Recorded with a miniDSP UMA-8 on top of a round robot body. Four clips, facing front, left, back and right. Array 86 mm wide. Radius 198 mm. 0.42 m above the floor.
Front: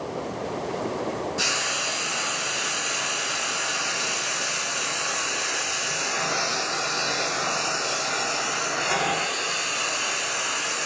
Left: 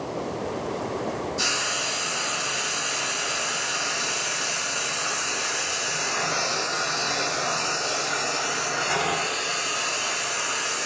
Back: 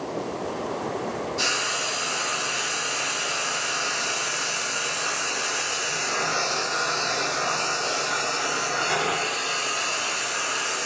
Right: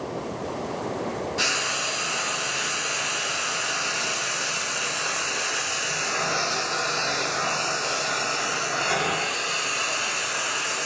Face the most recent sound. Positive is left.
turn(degrees=-85)